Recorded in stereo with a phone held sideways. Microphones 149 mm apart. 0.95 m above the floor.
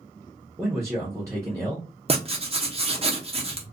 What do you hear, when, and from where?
0.6 s a man speaking: 20° right (ahead or behind), 0.7 m
2.1 s writing: 40° right (ahead or behind), 0.6 m